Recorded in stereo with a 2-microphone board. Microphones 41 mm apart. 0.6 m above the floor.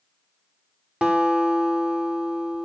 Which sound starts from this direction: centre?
A guitar, at 1.0 s.